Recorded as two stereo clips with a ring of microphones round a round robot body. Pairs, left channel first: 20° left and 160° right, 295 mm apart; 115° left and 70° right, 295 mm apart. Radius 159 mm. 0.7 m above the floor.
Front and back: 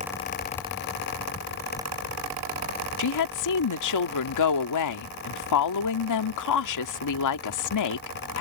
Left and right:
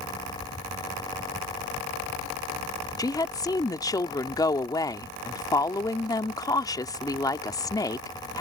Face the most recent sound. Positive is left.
turn(degrees=35)